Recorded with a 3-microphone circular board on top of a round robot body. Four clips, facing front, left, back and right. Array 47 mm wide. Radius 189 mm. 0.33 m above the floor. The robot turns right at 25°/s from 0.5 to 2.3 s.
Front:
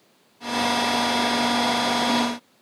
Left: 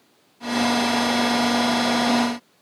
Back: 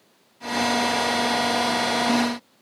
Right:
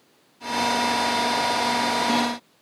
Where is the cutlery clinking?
No cutlery clinking in this recording.